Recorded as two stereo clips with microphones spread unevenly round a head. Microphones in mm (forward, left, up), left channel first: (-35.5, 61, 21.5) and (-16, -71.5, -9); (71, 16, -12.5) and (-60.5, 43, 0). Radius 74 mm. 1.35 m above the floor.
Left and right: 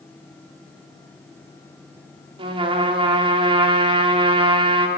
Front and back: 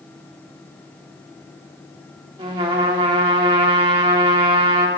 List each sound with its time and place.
2.4 s a trumpet: 135° right, 1.9 m